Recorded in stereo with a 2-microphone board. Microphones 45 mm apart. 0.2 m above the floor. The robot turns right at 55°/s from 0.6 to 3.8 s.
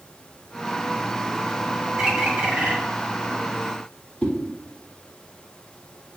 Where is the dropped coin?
I don't hear a dropped coin.